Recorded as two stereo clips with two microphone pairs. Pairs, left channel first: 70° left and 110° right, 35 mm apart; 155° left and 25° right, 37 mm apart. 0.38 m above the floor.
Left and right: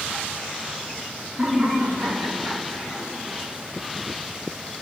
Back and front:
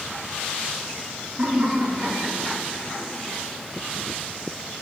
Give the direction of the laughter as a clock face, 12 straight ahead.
2 o'clock.